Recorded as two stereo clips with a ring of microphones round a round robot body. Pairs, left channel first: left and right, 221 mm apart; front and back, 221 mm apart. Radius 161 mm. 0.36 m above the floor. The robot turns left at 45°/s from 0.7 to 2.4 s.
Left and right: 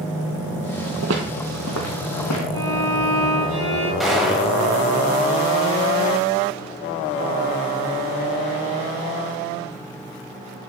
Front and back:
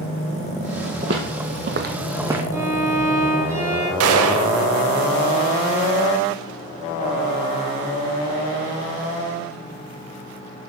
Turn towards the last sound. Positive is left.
turn(degrees=180)